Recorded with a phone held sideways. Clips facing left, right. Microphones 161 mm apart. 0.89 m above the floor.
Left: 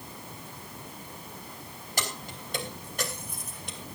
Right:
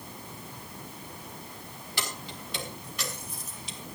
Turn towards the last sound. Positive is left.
turn(degrees=60)  # may be behind; listen again after turning